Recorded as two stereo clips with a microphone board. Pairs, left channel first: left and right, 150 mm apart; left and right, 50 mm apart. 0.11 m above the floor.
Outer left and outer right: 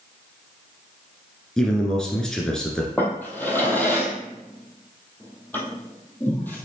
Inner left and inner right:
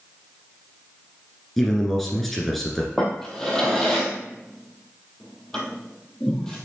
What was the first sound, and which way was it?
A man speaking, 5° left (ahead or behind).